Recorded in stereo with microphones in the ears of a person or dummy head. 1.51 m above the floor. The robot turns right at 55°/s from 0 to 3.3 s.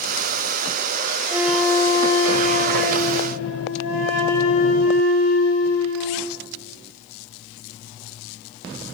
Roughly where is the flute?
Ahead.